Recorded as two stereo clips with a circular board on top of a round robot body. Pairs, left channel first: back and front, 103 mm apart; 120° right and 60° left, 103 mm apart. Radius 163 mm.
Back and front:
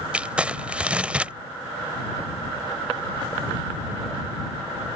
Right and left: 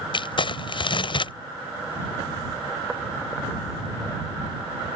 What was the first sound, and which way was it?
Crumpling, 80° right.